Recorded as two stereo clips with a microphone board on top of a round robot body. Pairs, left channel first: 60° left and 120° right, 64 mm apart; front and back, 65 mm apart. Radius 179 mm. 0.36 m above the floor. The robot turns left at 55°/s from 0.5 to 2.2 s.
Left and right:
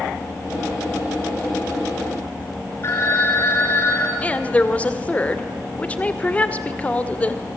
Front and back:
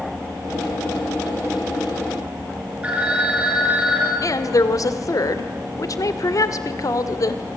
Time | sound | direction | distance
2.8 | a phone ringing | 105° left | 5.5 m
4.2 | a woman speaking | 5° right | 2 m